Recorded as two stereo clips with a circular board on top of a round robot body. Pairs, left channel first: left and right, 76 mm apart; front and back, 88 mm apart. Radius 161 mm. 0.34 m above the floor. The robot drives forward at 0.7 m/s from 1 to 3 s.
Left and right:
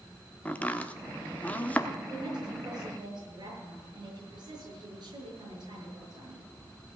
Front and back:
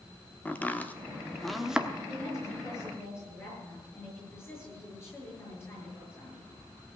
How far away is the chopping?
About 1.4 m.